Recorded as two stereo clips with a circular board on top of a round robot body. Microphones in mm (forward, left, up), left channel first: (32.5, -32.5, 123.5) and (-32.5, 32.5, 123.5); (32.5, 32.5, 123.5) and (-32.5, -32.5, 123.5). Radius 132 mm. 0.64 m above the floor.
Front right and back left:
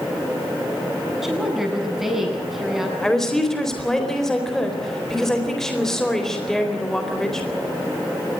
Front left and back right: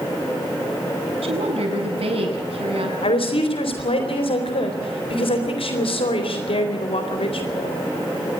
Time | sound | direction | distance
1.2 | a woman speaking | 140° right | 8 m
3.0 | a woman speaking | 40° left | 4 m